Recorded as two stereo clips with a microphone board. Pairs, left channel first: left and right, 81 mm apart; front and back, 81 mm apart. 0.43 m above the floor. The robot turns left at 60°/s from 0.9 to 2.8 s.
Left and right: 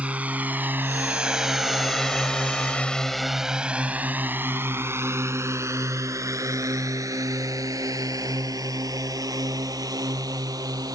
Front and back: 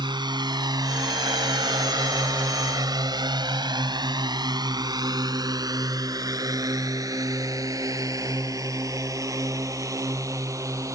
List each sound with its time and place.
0.0 s a drone: 160° right; by 10.9 s 130° right